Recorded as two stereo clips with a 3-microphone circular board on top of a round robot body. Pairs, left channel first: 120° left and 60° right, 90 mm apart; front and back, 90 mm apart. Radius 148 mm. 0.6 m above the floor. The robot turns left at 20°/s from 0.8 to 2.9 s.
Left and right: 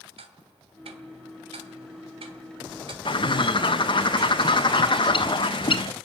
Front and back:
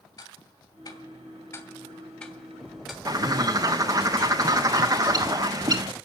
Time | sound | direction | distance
0.2 | ticking | 50° right | 2.5 m
3.0 | a bird | 135° left | 1.5 m